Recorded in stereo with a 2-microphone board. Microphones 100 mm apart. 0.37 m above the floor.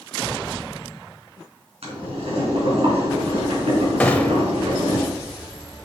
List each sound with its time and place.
1.8 s boiling: 75° right (ahead or behind), 3 m
4.0 s a gunshot: 15° left (ahead or behind), 0.7 m